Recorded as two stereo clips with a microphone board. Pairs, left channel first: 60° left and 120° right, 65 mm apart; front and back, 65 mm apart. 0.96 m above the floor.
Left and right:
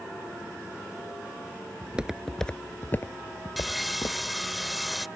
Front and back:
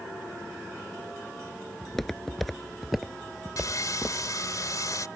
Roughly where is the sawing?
Ahead right.